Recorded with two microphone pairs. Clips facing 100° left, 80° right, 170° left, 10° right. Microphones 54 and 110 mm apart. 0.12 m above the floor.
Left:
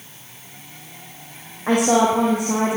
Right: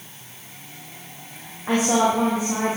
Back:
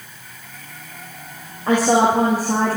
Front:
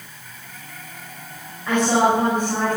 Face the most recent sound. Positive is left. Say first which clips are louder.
# left 3 dB, back 2 dB
turn(degrees=115)